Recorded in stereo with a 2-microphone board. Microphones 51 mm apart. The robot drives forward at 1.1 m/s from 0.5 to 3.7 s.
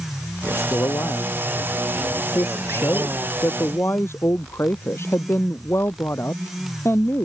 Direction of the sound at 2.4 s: 65° left (ahead or behind).